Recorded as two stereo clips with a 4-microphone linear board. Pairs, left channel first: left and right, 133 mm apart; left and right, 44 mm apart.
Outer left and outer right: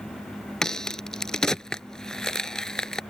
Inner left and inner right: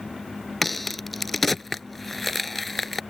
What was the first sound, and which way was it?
A crack, 5° left (ahead or behind).